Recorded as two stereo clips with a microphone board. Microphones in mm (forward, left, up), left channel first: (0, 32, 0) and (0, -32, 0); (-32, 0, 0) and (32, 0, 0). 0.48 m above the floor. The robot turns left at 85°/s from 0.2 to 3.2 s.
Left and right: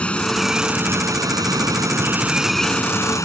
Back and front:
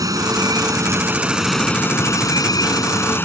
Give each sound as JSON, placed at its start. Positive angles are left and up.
{"t": 0.0, "sound": "running water", "azimuth_deg": 20}